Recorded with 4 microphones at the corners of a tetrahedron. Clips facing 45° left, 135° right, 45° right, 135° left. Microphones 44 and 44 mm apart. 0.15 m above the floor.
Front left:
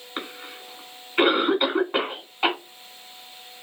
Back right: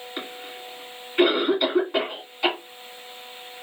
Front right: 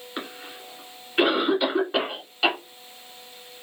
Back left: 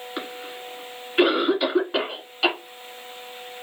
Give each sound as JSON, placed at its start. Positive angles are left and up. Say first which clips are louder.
{"t": 0.2, "sound": "a cough", "louder": "front left 2 dB, back left 1 dB", "azimuth_deg": 45, "distance_m": 1.6}